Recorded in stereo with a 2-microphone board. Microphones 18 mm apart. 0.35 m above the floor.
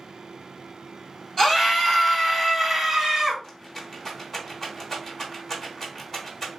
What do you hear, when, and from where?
1.4 s a scream: 30° left (ahead or behind), 1.5 m; by 3.3 s 25° right (ahead or behind), 1.4 m
3.4 s a rattle: 20° left (ahead or behind), 1.0 m